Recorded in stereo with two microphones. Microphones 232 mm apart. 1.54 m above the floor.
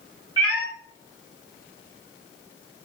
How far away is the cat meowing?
About 1.0 m.